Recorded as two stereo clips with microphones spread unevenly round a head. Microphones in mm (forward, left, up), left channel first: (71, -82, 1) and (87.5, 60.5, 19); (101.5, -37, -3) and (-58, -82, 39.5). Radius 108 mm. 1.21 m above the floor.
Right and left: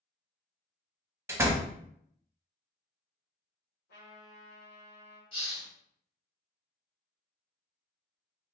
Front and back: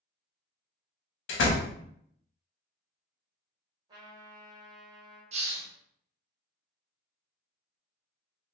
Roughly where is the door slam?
Ahead.